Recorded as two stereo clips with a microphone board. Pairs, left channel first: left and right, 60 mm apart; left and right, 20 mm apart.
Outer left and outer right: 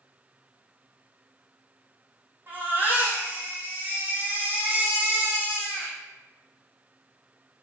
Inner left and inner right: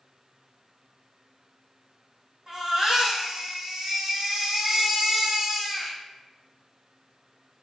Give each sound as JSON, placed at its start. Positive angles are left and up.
{"t": 2.5, "sound": "a baby crying", "side_deg": -35, "distance_m": 2.5}